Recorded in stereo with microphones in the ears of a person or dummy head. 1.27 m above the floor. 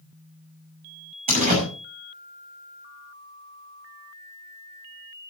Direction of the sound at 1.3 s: 45° right (ahead or behind).